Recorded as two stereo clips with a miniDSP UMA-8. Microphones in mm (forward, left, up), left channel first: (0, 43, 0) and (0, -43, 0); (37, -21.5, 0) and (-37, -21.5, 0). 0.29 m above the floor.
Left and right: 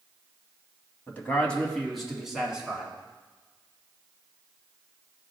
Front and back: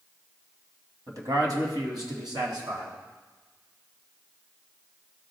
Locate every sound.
1.1 s a man speaking: 155° left, 1.8 m; by 2.9 s 170° right, 3 m